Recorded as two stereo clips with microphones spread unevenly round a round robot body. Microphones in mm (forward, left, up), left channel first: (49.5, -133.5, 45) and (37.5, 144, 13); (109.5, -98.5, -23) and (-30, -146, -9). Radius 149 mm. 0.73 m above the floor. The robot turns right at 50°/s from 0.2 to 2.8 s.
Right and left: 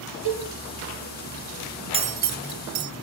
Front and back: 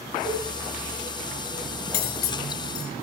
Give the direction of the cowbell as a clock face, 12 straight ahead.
9 o'clock.